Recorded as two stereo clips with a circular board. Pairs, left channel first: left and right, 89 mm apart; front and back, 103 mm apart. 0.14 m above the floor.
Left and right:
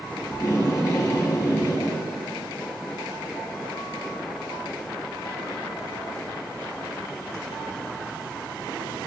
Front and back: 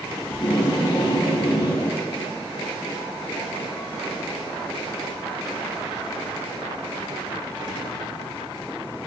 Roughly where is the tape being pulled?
Ahead left.